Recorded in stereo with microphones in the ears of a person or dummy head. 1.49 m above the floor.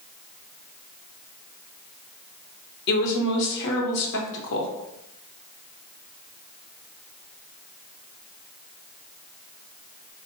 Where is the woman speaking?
65° left (ahead or behind), 0.8 m.